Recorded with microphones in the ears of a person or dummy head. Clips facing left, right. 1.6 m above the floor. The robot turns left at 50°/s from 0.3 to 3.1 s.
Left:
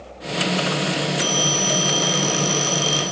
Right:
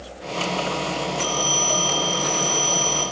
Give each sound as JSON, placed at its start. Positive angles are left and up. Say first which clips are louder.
{"t": 1.2, "sound": "a phone ringing", "louder": "left 2 dB", "azimuth_deg": 165, "distance_m": 3.5}